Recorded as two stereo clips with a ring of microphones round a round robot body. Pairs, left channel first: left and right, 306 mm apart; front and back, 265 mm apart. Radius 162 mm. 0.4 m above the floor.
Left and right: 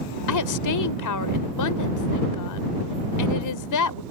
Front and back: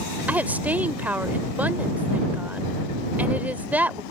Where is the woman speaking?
95° left.